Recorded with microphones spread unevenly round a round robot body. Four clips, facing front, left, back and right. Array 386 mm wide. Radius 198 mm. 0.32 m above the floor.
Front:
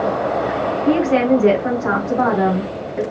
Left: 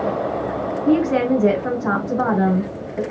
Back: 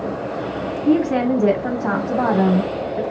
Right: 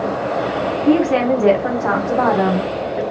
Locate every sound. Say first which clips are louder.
0.8 s a woman speaking: right 2 dB, front 1 dB; 115° right, 2 m